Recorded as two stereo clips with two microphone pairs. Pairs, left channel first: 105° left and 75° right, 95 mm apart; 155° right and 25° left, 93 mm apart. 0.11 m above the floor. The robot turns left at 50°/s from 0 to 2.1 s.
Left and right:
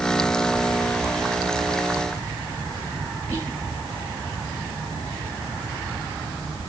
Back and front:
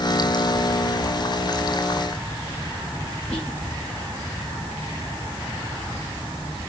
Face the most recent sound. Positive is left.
turn(degrees=-80)